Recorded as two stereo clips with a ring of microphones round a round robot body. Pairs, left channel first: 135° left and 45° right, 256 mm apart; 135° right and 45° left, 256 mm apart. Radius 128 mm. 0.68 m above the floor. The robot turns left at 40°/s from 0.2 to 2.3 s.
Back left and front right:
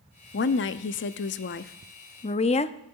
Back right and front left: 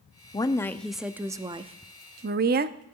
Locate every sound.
0.3 s a woman speaking: 160° left, 0.6 m; by 2.8 s 80° left, 0.6 m